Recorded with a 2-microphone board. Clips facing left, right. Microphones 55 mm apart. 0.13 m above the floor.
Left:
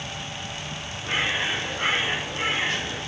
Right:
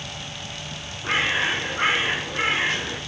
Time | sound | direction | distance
1.0 | a bird | 70° right (ahead or behind) | 3.5 m